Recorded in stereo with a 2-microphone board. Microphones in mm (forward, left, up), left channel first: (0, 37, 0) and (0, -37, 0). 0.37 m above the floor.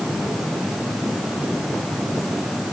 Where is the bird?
I don't hear a bird.